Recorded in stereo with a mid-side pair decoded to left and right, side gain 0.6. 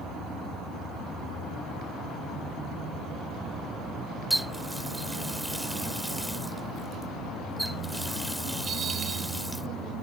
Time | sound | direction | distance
4.3 | a running tap | 5° right | ?